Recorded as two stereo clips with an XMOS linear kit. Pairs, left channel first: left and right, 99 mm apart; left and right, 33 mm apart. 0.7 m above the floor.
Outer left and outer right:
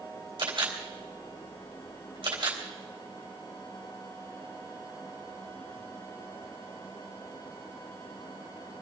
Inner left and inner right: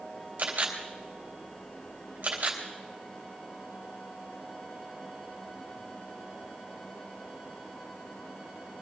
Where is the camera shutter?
55° right (ahead or behind), 3.5 m.